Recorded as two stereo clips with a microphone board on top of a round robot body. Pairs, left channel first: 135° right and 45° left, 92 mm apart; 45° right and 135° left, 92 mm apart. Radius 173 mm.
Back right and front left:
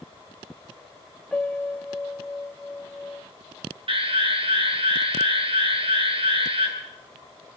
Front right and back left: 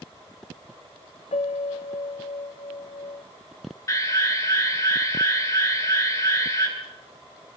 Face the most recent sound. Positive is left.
turn(degrees=15)